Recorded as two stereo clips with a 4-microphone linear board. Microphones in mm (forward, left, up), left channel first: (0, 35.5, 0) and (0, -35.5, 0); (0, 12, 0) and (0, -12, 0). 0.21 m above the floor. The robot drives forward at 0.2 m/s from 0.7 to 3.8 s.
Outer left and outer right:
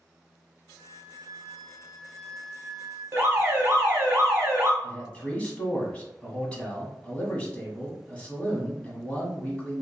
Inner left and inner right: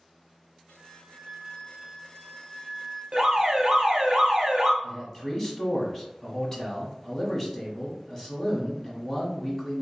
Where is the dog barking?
No dog barking in this recording.